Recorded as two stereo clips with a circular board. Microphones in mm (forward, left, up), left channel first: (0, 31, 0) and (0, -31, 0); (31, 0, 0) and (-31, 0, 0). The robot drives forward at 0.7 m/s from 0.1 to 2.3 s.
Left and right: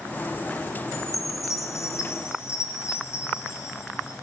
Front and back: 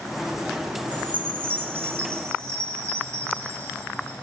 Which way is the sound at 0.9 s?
115° left.